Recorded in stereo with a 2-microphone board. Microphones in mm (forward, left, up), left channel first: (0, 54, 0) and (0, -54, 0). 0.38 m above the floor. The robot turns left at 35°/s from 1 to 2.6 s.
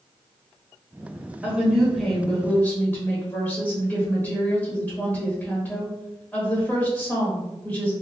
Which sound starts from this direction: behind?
A woman speaking, at 1.4 s.